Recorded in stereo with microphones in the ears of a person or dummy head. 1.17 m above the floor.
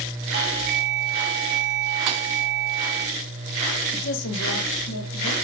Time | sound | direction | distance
0.3 | a doorbell | 70° right (ahead or behind) | 2.5 m
2.1 | a thud | 35° right (ahead or behind) | 0.6 m
3.9 | a woman speaking | 60° left (ahead or behind) | 1.2 m